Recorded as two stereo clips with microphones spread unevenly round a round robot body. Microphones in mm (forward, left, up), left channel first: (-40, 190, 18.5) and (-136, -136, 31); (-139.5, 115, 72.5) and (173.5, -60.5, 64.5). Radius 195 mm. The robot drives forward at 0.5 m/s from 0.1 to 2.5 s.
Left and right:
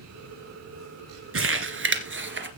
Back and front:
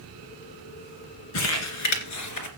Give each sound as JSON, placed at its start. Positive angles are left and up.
{"t": 1.3, "sound": "crumpling", "azimuth_deg": -160, "distance_m": 2.0}